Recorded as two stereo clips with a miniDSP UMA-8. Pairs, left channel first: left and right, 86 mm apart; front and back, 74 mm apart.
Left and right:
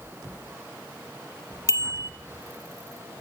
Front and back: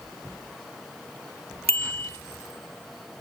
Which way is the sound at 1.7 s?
65° left.